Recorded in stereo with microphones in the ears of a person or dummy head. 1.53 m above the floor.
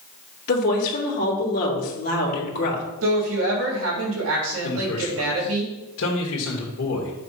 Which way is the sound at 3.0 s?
80° right.